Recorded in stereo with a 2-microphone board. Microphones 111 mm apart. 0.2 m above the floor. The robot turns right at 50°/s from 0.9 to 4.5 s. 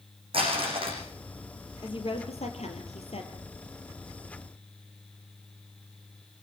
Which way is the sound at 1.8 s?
50° left.